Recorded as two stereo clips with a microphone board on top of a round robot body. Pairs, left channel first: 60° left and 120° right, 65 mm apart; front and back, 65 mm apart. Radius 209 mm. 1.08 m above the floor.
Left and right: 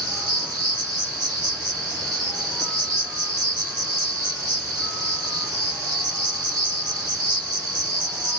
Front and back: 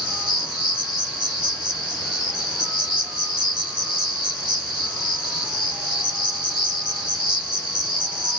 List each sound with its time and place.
0.0 s an insect: 95° right, 1.4 m